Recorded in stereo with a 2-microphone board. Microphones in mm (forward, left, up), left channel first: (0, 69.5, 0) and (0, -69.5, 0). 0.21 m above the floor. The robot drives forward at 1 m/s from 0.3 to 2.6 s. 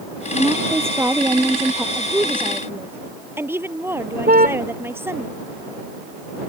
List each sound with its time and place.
0.3 s a woman speaking: 20° right (ahead or behind); by 1.9 s 15° right (ahead or behind)
1.9 s a woman speaking: 15° right (ahead or behind)
4.3 s a car horn: 75° right (ahead or behind)